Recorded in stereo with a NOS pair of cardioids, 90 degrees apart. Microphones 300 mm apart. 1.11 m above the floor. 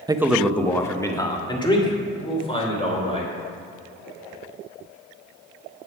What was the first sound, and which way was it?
A man speaking, 15° right.